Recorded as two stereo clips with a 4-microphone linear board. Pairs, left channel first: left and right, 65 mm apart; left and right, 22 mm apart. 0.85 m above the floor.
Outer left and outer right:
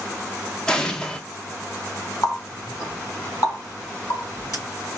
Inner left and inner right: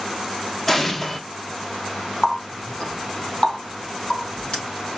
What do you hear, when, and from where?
0.7 s an explosion: 10° left (ahead or behind), 0.6 m
2.2 s a running tap: 50° left (ahead or behind), 3 m